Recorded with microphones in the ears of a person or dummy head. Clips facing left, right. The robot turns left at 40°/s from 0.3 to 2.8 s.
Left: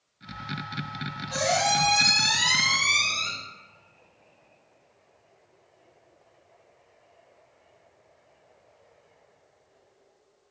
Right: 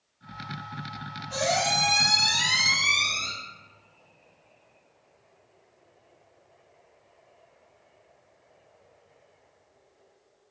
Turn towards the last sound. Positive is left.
turn(degrees=95)